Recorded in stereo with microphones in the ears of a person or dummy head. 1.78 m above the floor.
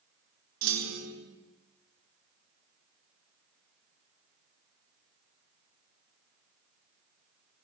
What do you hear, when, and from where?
0.6 s a clunk: 85° right, 5 m